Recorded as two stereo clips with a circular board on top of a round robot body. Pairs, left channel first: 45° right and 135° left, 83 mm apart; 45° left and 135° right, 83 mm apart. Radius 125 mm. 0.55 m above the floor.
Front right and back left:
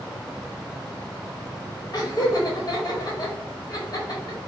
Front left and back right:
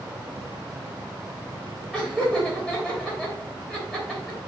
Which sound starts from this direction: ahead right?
Laughter, at 1.9 s.